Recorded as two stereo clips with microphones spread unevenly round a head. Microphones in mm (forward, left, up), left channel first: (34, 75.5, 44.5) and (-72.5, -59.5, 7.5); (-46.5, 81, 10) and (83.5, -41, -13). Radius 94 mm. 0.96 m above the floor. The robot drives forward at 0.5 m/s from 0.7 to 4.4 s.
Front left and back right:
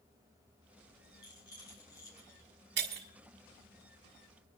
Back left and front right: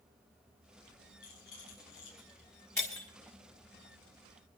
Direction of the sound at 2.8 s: 150° right.